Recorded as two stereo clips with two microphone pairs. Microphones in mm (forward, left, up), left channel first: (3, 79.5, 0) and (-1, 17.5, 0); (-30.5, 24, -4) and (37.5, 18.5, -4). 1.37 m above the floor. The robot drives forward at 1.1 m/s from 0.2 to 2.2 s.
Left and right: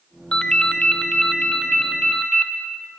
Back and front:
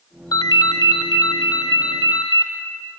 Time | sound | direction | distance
0.3 | a ringtone | 155° left | 1.0 m